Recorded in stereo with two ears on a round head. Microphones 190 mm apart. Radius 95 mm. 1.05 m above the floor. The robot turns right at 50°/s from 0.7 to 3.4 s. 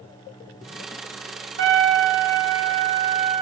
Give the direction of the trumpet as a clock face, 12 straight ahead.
4 o'clock.